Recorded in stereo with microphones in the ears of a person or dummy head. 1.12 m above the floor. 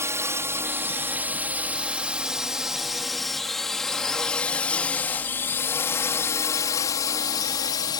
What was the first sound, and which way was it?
A drone, 15° right (ahead or behind).